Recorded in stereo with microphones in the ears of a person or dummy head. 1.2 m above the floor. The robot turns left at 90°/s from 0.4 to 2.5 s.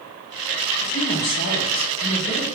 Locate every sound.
0.8 s a woman speaking: 165° left, 0.7 m; by 2.5 s 15° left, 0.7 m